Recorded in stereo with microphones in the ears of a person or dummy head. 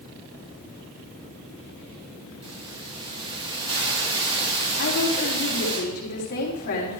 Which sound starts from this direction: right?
A hiss, at 2.4 s.